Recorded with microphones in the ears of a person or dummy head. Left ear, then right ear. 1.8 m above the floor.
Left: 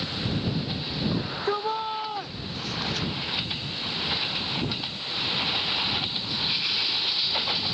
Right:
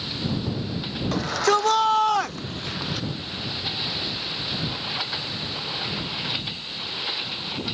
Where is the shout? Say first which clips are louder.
Right 10 dB; 80° right; by 3.1 s 10° left (ahead or behind).